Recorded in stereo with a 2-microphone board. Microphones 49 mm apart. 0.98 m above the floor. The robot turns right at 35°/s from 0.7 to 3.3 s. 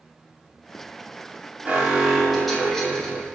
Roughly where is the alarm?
Ahead right.